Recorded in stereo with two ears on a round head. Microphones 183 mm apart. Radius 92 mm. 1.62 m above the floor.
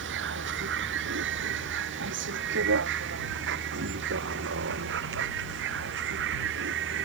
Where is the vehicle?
60° right (ahead or behind).